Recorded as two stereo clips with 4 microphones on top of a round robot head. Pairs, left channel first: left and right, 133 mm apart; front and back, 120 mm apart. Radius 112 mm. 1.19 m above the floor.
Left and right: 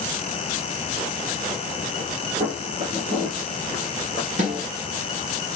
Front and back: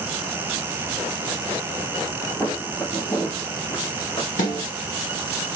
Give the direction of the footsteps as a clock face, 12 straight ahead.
3 o'clock.